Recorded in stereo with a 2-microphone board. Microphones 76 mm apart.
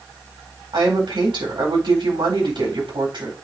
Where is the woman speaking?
80° right, 4.5 m.